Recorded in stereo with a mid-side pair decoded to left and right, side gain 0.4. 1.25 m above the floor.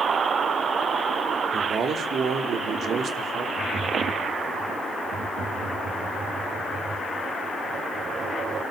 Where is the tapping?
60° right, 6 m.